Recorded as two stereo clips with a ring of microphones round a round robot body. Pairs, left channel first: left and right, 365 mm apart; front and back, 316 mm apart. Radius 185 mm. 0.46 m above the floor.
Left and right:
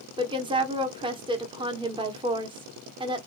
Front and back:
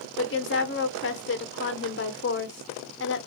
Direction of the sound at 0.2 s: 20° right.